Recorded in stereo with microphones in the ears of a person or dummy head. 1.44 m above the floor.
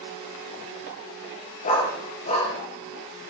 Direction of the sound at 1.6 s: 40° left (ahead or behind).